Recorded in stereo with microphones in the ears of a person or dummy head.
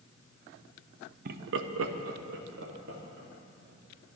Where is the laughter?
55° right (ahead or behind), 1.0 m; by 4.2 s 45° right (ahead or behind), 3.5 m.